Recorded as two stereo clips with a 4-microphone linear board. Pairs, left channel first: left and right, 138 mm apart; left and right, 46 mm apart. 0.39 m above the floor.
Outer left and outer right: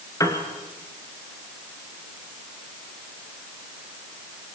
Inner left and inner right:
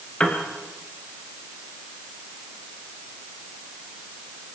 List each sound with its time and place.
0.2 s a piano: 20° left (ahead or behind), 2.5 m